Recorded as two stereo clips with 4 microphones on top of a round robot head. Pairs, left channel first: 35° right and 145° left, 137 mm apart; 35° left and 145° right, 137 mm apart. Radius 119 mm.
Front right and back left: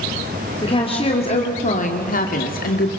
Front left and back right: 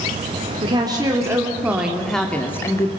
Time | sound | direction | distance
0.6 | a woman speaking | 90° right | 2.5 m